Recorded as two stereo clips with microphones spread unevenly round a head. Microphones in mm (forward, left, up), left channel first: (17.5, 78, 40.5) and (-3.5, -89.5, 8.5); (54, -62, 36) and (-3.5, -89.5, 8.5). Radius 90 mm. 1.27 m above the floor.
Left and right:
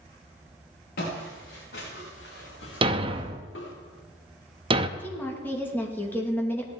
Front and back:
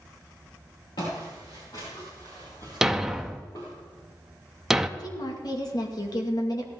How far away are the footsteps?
About 5 m.